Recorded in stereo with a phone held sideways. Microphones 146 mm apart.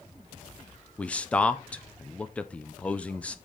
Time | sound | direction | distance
1.0 | a man speaking | 10° left (ahead or behind) | 0.5 m